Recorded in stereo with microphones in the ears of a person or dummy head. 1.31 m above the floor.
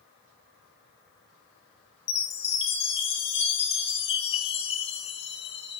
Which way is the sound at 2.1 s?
30° left (ahead or behind).